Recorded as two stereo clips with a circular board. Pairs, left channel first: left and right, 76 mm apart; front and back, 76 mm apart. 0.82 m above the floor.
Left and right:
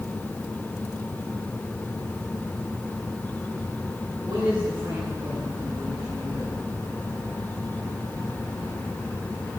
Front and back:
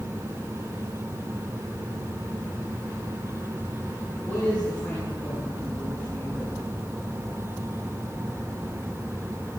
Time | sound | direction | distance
4.2 | a man speaking | 70° right | 9.5 m